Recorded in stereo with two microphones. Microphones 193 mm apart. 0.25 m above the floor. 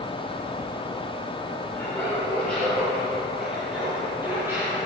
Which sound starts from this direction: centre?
Laughter, at 1.8 s.